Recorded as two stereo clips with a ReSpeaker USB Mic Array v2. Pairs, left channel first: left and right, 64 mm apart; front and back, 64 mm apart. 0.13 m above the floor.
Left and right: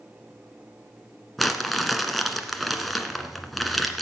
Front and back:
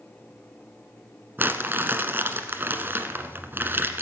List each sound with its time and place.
1.4 s crumpling: straight behind, 1.5 m